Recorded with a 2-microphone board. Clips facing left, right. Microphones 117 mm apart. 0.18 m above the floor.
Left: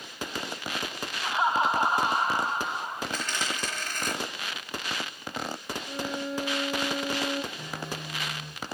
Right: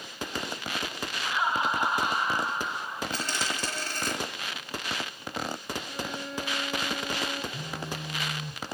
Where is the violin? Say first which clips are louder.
Left 4 dB; 5° left (ahead or behind), 2 m.